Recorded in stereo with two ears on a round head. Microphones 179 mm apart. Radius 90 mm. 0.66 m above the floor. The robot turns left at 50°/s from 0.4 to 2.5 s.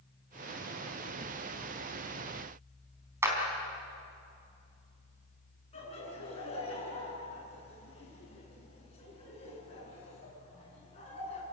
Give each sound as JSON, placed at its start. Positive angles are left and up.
{"t": 3.2, "sound": "a clap", "side_deg": -15, "distance_m": 4.5}
{"t": 5.7, "sound": "laughter", "side_deg": 30, "distance_m": 8.5}